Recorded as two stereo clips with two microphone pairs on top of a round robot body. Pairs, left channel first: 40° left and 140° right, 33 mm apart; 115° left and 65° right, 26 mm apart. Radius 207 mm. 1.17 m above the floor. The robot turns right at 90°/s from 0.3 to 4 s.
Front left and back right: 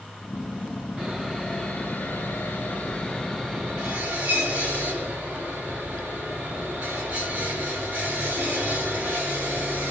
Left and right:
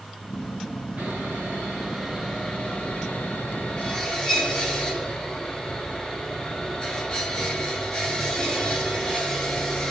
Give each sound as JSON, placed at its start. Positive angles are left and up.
{"t": 1.0, "sound": "sawing", "azimuth_deg": -70, "distance_m": 2.0}